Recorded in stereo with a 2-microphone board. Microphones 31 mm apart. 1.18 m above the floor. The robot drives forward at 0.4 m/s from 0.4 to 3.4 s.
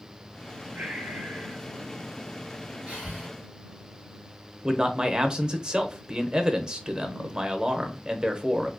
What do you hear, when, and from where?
0.8 s breathing: 65° right (ahead or behind), 0.9 m; by 1.6 s 55° right (ahead or behind), 1.0 m
2.9 s breathing: 50° right (ahead or behind), 2.5 m; by 3.3 s 45° right (ahead or behind), 2.5 m
4.6 s a man speaking: 30° right (ahead or behind), 0.6 m